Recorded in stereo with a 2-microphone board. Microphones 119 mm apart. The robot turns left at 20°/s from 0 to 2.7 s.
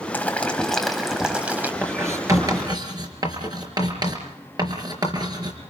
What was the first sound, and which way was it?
Boiling, 15° left.